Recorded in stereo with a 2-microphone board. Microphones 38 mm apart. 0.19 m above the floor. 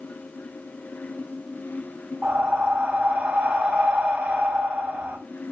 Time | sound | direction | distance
2.2 | breathing | 60° right (ahead or behind) | 4.5 m